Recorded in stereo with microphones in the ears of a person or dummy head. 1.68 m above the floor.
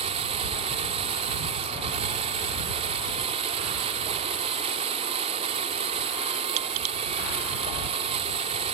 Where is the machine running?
35° right (ahead or behind).